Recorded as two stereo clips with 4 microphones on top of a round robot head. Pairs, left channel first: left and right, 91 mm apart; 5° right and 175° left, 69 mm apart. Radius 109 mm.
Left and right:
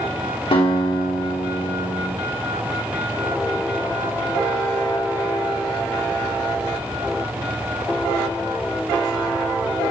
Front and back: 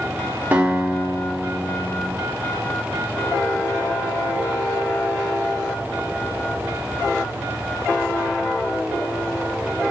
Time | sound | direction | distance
0.5 | a guitar | 110° left | 2.5 m